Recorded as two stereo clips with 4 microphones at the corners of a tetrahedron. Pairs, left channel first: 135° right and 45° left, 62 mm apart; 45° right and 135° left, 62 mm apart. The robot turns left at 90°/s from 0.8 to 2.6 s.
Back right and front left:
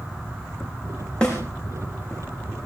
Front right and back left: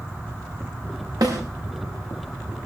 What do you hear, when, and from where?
1.2 s a snare drum: 150° left, 7 m; by 1.4 s 135° left, 7 m